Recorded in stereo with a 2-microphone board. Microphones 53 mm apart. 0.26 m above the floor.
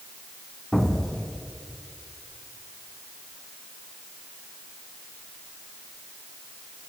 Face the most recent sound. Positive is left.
turn(degrees=10)  # may be behind; listen again after turning